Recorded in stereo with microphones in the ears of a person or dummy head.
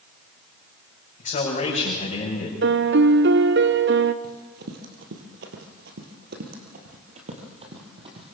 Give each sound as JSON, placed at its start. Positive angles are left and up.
{"t": 1.2, "sound": "a man speaking", "side_deg": 40, "distance_m": 7.5}
{"t": 2.6, "sound": "a piano", "side_deg": -60, "distance_m": 0.9}
{"t": 4.2, "sound": "running footsteps", "side_deg": -45, "distance_m": 2.5}